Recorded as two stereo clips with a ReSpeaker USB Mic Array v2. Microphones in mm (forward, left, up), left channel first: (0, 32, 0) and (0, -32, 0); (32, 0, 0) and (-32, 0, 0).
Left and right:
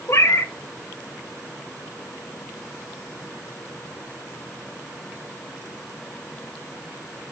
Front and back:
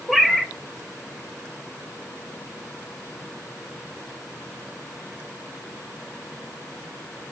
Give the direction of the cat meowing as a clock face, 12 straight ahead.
9 o'clock.